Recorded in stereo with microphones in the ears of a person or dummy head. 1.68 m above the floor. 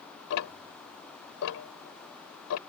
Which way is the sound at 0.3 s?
80° left.